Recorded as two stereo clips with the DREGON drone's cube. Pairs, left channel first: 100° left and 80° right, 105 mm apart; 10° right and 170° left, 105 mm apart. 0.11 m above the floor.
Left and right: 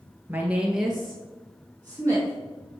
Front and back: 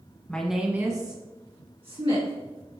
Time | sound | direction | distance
0.3 | a woman speaking | 70° right | 1.1 m